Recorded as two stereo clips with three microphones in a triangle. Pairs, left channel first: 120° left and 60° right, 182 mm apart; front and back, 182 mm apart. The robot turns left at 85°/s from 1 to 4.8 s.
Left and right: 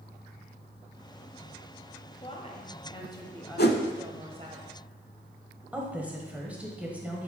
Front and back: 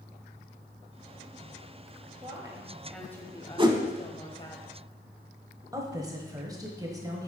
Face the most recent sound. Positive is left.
turn(degrees=-135)